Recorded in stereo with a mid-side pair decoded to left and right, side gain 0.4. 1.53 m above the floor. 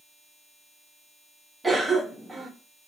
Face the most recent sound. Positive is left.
turn(degrees=-25)